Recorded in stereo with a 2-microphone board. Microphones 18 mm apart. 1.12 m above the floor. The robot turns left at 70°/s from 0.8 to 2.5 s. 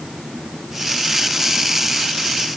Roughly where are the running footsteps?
I don't hear running footsteps.